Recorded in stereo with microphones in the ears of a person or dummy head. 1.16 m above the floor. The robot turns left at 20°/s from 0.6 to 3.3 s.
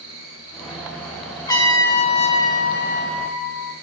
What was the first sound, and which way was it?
An insect, 115° right.